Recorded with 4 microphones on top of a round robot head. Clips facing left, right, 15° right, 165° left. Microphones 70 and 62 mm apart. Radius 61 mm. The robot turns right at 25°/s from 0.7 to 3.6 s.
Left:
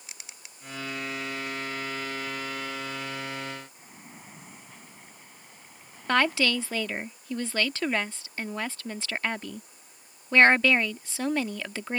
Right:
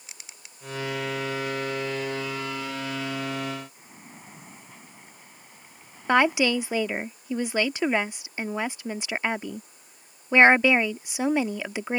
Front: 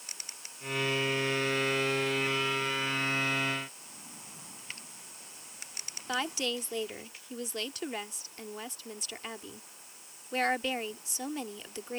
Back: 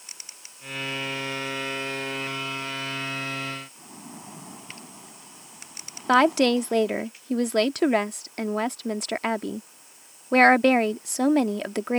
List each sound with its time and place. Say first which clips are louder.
3.8 s a splash: right 1 dB, back 9 dB; 175° right
6.1 s a woman speaking: right 4 dB, back 15 dB; 160° right